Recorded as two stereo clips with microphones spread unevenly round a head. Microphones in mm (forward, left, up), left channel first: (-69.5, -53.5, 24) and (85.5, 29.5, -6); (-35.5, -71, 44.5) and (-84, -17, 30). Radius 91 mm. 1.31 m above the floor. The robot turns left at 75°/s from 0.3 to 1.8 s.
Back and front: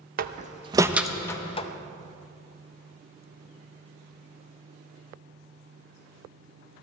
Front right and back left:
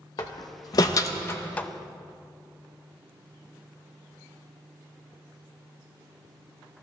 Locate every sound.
0.2 s a door slam: 10° right, 0.7 m; by 1.7 s 115° right, 0.7 m